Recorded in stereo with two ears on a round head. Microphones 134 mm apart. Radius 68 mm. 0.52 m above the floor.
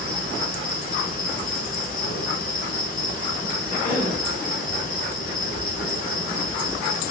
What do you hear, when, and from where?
0.0 s an insect: 55° left (ahead or behind), 1.3 m
3.7 s a cough: 55° left (ahead or behind), 3 m